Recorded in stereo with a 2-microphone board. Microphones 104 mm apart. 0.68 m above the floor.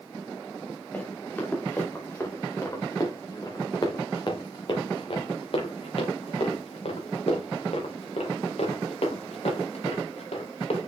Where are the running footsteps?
15° left (ahead or behind), 4 m; by 10.9 s 75° left (ahead or behind), 4.5 m.